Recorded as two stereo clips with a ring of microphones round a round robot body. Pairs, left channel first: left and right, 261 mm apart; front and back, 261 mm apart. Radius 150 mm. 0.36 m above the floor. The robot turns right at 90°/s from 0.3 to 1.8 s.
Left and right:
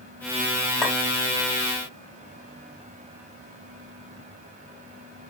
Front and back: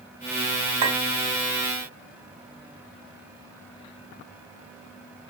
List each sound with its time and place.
0.8 s a clink: 175° left, 1.4 m; by 1.0 s 170° right, 1.4 m